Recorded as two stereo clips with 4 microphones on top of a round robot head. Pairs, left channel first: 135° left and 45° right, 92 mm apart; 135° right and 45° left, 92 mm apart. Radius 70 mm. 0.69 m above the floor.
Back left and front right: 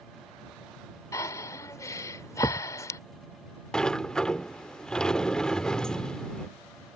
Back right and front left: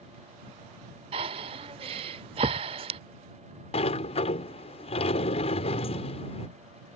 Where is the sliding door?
145° right.